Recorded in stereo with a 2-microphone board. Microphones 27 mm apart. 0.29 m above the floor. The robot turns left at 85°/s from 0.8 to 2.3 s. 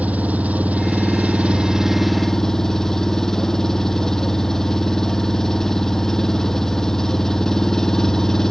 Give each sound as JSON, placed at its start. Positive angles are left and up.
{"t": 0.0, "sound": "an engine running", "azimuth_deg": -75}